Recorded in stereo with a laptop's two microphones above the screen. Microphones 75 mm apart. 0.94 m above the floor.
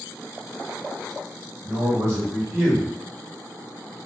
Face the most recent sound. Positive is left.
turn(degrees=-25)  # may be behind; listen again after turning